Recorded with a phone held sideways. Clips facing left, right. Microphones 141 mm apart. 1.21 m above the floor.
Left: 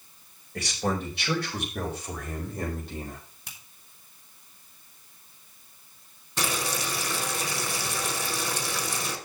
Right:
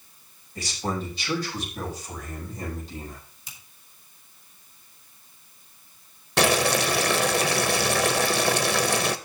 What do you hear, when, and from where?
0.6 s a man speaking: 75° left (ahead or behind), 5 m; by 3.2 s 60° left (ahead or behind), 5 m
3.5 s a finger snap: 65° left (ahead or behind), 2.5 m
6.4 s boiling: 85° right, 0.9 m